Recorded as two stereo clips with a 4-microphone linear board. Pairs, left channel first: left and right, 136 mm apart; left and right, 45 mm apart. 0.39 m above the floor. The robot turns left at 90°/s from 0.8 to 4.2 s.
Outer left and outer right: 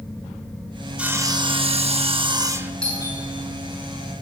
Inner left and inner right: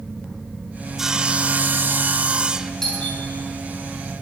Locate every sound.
1.0 s sawing: 10° right, 0.6 m; by 2.7 s 165° right, 0.6 m
2.8 s a doorbell: 10° left (ahead or behind), 6.5 m; by 3.2 s 40° left (ahead or behind), 6.5 m